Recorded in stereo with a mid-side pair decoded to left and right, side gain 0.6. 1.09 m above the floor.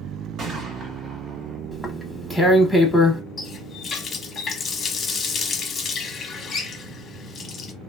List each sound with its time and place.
0.4 s a gunshot: 55° right, 1.3 m
1.7 s tearing paper: 5° left, 1.0 m
3.4 s a running tap: 40° left, 0.9 m